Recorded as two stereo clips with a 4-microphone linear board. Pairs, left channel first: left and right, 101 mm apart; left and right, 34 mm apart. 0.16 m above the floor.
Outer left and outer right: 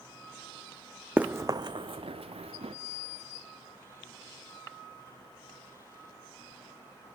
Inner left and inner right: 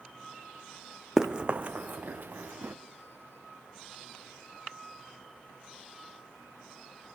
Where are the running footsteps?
15° right (ahead or behind), 0.6 m; by 2.8 s 85° right, 1.4 m.